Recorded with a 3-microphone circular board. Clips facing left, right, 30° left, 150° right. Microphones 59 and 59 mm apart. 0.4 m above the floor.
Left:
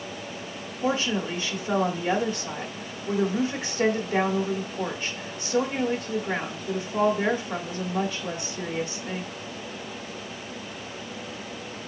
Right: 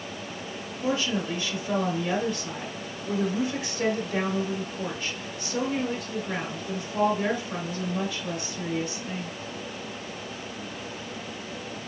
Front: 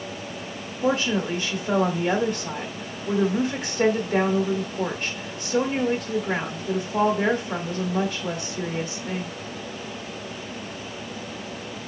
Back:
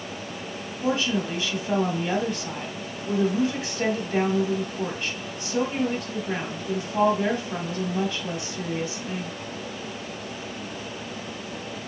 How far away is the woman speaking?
About 1.4 m.